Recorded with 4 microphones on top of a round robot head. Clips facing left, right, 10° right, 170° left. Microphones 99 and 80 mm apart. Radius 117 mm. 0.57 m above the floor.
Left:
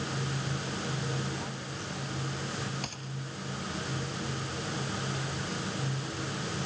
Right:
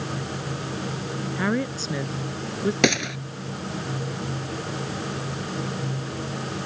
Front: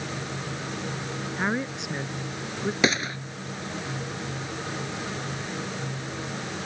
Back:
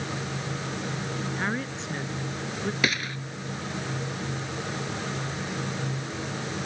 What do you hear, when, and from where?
1.4 s a woman speaking: 85° right; by 2.7 s 90° right
2.8 s a gunshot: 80° right